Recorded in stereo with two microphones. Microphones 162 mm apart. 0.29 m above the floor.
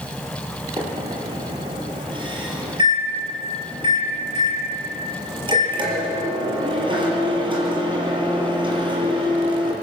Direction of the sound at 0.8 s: 30° right (ahead or behind).